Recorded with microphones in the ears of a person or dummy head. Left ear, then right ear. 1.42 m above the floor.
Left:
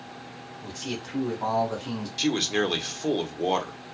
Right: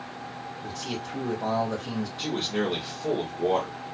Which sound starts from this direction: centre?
A man speaking, at 0.6 s.